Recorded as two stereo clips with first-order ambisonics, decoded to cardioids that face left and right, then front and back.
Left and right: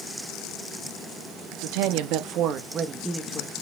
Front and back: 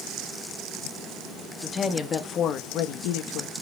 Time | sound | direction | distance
1.6 | a woman speaking | 80° right | 1.6 m